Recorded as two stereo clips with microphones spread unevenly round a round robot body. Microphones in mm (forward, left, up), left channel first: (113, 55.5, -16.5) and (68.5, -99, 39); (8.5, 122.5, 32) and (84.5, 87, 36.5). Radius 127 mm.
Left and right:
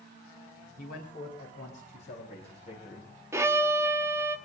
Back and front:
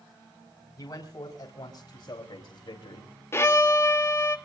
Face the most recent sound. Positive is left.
turn(degrees=160)